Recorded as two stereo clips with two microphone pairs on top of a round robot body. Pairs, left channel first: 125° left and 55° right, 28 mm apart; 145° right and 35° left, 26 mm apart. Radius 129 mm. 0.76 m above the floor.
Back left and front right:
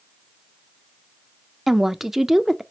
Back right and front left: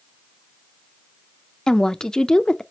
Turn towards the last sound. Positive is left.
turn(degrees=-110)